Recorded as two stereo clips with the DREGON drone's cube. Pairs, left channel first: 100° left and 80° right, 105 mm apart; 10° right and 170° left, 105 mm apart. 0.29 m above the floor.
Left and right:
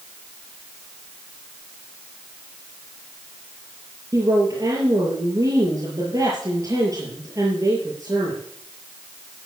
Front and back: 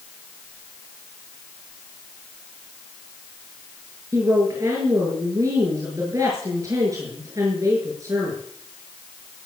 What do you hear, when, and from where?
4.1 s a woman speaking: 135° right, 6.5 m